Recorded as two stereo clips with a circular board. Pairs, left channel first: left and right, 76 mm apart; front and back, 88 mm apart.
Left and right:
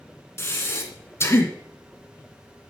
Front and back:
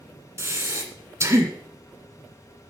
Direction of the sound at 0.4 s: 135° left.